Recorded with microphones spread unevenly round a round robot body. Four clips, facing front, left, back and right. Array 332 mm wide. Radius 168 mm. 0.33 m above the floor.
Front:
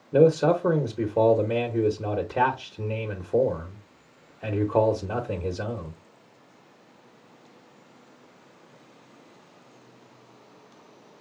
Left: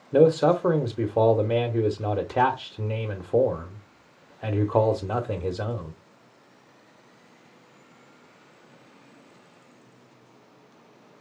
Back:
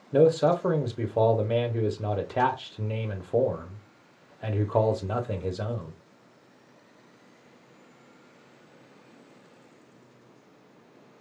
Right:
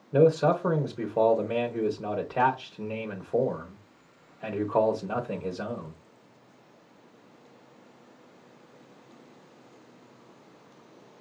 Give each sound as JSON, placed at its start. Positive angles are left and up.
{"t": 0.1, "sound": "a man speaking", "azimuth_deg": 60, "distance_m": 0.9}